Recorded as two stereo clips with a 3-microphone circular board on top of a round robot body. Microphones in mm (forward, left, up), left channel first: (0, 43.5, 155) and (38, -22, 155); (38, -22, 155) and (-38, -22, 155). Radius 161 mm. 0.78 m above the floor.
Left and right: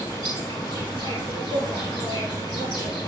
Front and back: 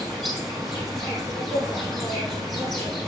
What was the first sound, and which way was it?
An insect, 140° left.